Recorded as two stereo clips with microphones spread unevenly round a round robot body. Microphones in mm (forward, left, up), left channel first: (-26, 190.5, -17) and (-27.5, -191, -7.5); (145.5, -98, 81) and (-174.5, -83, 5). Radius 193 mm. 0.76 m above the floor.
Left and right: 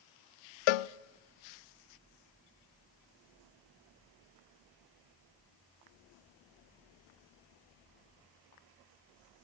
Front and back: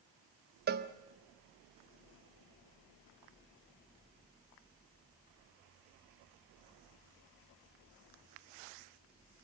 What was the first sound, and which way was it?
A cowbell, 115° left.